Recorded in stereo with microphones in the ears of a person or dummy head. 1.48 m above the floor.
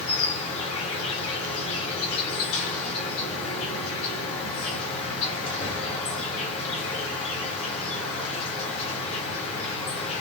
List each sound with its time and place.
0.0 s an insect: 35° left (ahead or behind), 1.0 m